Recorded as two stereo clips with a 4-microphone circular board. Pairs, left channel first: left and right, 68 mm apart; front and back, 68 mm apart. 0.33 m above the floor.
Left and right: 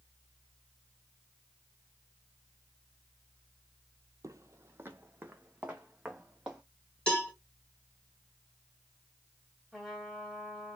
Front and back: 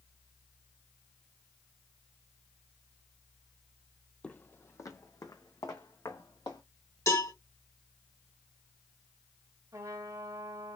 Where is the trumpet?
Straight behind, 1.6 m.